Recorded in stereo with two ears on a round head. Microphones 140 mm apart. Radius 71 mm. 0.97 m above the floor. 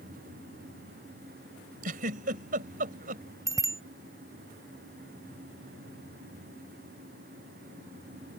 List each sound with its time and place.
1.8 s a giggle: 60° right (ahead or behind)
3.5 s a bicycle bell: 20° right (ahead or behind)